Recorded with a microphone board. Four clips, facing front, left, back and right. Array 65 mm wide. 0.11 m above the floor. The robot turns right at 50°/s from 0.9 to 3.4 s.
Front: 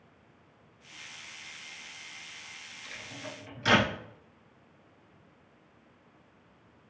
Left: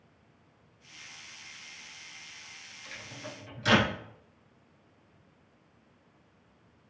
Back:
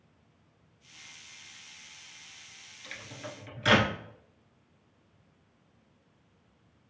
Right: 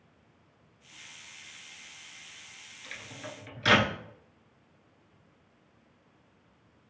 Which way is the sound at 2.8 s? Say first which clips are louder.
Right 1 dB, back 1 dB; 135° right.